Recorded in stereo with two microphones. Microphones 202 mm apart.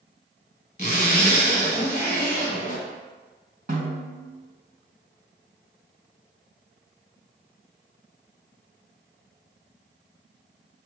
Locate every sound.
0.8 s a zipper: 40° left (ahead or behind), 1.7 m
3.7 s a snare drum: 40° right (ahead or behind), 1.8 m